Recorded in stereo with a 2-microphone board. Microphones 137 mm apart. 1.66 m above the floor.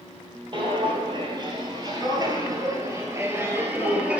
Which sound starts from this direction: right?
Footsteps, at 0.5 s.